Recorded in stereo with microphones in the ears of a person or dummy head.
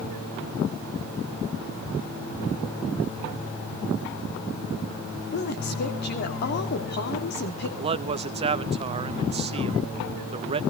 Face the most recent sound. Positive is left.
turn(degrees=-30)  # may be behind; listen again after turning